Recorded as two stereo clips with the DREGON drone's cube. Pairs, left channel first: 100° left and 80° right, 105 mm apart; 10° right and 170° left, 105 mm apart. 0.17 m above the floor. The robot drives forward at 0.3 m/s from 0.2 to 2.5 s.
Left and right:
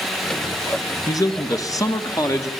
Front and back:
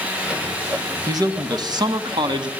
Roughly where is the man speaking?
Behind left.